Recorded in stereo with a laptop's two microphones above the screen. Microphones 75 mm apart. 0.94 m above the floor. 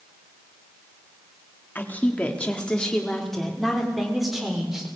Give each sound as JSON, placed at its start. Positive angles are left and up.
{"t": 1.8, "sound": "a woman speaking", "side_deg": 25, "distance_m": 1.9}